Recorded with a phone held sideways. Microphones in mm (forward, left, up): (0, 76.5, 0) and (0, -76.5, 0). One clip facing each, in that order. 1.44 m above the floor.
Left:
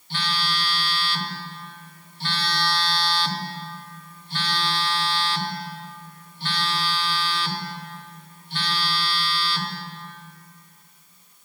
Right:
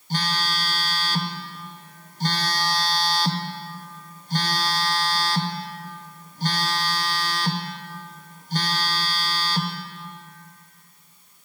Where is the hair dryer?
No hair dryer in this recording.